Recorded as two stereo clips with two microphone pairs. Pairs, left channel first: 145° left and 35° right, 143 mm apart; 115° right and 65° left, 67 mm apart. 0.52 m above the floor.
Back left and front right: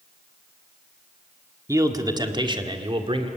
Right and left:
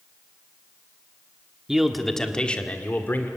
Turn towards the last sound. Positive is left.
turn(degrees=-70)